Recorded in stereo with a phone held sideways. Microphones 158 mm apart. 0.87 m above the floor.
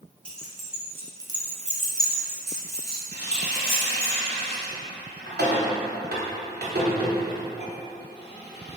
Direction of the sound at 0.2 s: 5° left (ahead or behind).